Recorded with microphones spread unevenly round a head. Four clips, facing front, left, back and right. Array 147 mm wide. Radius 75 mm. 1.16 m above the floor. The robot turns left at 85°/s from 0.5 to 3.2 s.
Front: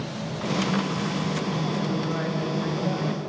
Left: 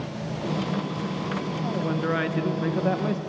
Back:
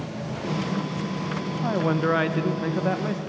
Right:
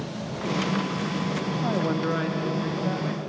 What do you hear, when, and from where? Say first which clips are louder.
1.6 s a man speaking: right 2 dB, back 4 dB; 140° right, 1.3 m; by 3.2 s 85° left, 1.3 m